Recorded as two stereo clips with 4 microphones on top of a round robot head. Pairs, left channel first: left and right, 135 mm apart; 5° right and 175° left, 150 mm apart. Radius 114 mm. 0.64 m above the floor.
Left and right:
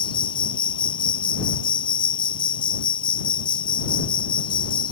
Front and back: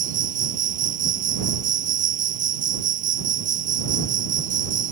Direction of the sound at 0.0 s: 145° left.